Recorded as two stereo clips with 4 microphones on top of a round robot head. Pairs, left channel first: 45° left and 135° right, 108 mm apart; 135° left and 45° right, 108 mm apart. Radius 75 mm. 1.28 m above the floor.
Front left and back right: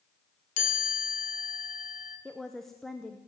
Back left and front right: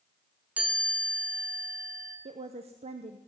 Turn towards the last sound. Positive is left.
turn(degrees=-45)